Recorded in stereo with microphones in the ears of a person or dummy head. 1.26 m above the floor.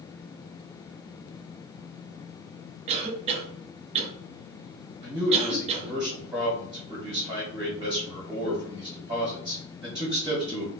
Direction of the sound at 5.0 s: 20° right (ahead or behind).